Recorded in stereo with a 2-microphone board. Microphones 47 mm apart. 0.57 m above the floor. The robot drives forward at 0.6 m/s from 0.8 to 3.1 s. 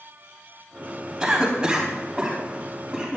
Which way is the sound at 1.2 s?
20° right (ahead or behind).